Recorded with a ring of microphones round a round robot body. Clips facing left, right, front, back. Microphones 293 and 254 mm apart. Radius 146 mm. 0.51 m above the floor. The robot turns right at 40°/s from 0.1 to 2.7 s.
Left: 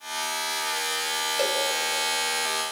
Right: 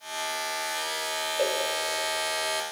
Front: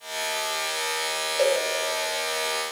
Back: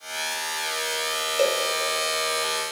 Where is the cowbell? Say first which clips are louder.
Even, front 1 dB; 140° left, 1.7 m; by 1.6 s 150° left, 1.7 m.